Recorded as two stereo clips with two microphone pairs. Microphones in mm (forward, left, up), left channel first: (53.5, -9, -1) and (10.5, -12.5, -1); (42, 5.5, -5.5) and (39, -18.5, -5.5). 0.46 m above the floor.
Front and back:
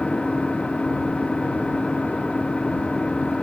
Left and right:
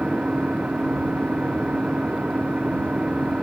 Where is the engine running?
65° right.